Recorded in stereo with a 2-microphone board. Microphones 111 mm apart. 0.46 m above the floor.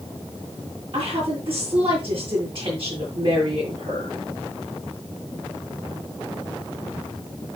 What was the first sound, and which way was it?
A woman speaking, 55° right (ahead or behind).